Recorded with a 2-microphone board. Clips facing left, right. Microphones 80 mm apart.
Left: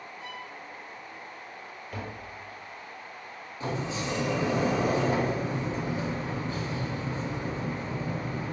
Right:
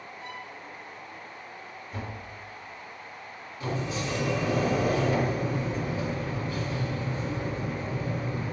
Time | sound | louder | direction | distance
0.2 | a violin | right 1 dB | 45° right (ahead or behind) | 3 m
1.9 | tapping | even | 65° left (ahead or behind) | 2.5 m
3.6 | a sliding door | even | 25° left (ahead or behind) | 1.3 m